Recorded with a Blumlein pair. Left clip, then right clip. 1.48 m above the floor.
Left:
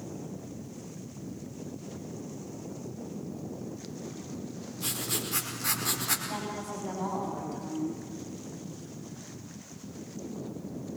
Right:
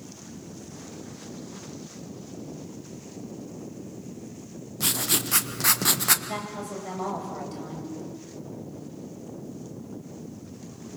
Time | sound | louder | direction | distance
4.8 | writing | right 7 dB | 60° right | 1.4 m
6.2 | a woman speaking | right 2 dB | 35° right | 7 m